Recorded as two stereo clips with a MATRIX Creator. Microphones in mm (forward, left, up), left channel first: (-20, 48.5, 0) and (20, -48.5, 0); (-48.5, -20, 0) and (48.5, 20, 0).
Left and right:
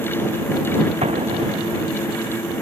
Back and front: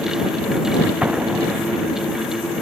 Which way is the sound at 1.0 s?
55° right.